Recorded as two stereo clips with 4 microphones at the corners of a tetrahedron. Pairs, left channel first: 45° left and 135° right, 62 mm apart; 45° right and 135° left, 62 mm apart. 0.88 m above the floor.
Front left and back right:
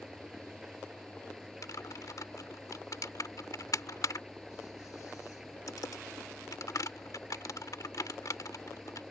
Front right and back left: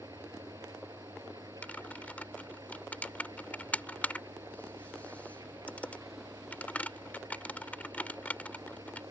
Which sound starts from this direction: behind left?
An engine running, at 0.0 s.